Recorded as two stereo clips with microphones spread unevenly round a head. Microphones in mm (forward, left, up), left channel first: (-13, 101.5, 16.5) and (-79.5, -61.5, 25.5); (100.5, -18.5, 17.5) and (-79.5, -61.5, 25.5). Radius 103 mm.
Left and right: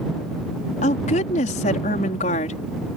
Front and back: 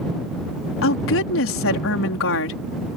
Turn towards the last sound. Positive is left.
turn(degrees=10)